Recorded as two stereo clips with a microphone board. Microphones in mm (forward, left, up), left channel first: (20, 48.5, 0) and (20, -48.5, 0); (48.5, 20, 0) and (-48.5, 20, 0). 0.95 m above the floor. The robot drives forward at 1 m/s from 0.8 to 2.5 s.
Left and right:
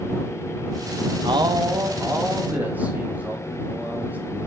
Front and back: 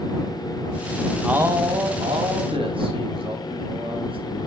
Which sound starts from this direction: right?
A man speaking, at 1.2 s.